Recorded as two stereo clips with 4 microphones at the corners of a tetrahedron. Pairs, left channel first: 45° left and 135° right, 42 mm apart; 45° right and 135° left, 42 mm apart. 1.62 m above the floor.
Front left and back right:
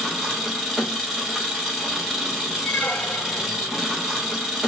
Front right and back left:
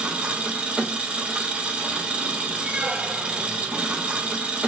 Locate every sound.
0.0 s an engine running: 140° left, 1.1 m
2.6 s a squeak: 105° left, 1.1 m